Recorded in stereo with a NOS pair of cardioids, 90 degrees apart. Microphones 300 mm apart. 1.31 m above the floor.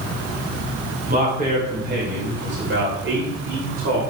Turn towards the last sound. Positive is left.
turn(degrees=-45)